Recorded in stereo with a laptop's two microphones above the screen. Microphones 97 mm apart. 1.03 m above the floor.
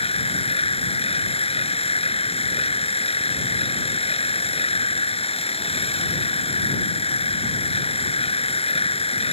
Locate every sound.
0.0 s a machine running: 90° left